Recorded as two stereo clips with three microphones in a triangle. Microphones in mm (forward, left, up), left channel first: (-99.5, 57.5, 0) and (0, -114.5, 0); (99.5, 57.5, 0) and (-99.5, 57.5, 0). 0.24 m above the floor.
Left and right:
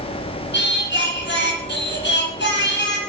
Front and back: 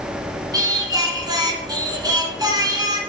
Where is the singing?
110° left, 2.0 m.